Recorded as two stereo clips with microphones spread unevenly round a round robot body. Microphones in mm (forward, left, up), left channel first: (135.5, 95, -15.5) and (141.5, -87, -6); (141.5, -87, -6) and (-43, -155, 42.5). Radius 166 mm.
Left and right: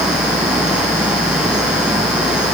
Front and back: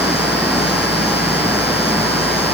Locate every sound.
Only background noise.